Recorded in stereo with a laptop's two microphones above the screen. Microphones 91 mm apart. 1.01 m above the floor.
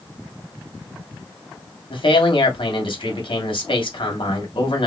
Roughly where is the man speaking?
Left.